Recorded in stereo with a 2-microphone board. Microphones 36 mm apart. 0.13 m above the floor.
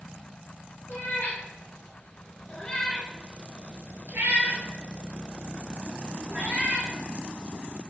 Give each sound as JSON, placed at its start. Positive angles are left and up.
{"t": 0.9, "sound": "a cat meowing", "side_deg": 55, "distance_m": 1.6}